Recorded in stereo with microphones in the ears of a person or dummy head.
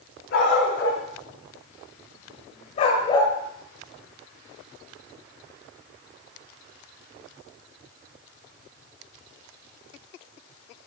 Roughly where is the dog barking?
Left.